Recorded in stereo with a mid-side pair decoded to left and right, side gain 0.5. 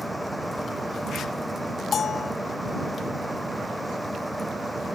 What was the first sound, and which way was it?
A fan, straight ahead.